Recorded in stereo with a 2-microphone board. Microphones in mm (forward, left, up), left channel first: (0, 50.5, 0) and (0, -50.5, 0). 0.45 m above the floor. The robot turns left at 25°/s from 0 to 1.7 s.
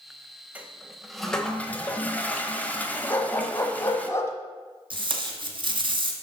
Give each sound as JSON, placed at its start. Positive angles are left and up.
{"t": 0.6, "sound": "a toilet flushing", "side_deg": -15, "distance_m": 1.0}
{"t": 3.1, "sound": "a dog barking", "side_deg": 25, "distance_m": 1.2}
{"t": 4.9, "sound": "tape being pulled", "side_deg": -50, "distance_m": 1.5}